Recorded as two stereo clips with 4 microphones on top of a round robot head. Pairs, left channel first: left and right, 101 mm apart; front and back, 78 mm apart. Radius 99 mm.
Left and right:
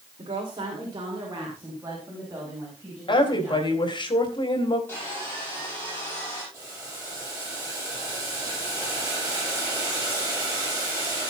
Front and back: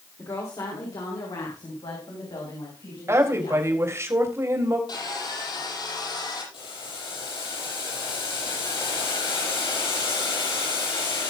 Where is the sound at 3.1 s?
125° left, 3.5 m.